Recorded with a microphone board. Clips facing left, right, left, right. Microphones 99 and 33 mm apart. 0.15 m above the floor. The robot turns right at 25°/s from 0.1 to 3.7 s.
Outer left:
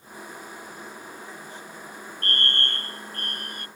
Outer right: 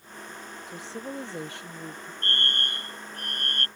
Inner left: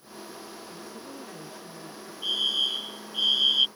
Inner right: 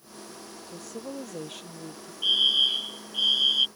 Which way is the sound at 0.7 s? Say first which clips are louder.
Outer right 4 dB, inner right 3 dB; 95° right.